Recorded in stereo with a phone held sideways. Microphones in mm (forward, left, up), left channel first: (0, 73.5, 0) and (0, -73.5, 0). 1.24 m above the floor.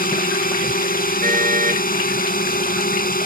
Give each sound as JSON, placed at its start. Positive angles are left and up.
{"t": 0.0, "sound": "a drone", "side_deg": 80}
{"t": 1.2, "sound": "a car horn", "side_deg": -70}